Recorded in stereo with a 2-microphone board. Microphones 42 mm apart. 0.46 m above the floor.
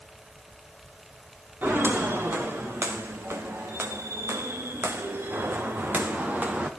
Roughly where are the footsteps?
Right.